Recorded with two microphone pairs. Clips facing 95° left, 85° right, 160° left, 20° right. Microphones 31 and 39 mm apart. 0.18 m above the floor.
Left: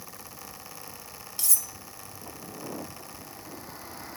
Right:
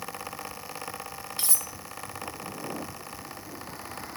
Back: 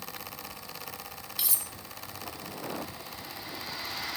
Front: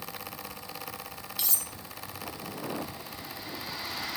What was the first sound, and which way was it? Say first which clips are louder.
Cutlery clinking: even, even; 115° right.